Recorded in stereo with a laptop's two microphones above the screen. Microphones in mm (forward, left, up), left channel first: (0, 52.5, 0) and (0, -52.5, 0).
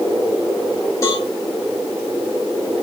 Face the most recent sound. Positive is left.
turn(degrees=30)  # may be behind; listen again after turning